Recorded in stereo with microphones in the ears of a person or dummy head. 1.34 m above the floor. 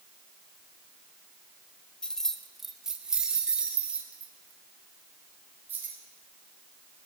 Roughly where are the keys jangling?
Centre.